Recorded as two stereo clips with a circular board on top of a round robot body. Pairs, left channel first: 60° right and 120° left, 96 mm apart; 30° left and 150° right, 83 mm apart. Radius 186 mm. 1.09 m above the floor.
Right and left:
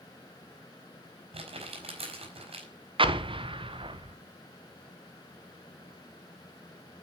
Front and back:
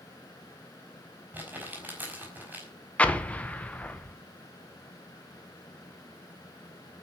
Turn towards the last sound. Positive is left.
turn(degrees=100)